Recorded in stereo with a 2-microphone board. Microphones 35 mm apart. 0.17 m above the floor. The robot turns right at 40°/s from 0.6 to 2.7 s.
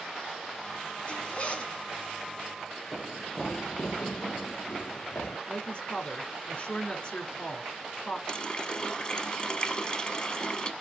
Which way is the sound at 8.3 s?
25° left (ahead or behind).